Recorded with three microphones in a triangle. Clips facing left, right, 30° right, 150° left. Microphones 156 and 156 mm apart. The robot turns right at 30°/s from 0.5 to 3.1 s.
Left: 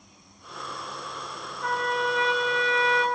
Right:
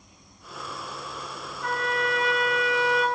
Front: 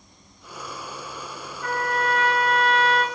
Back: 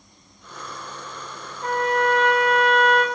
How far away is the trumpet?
About 1.1 m.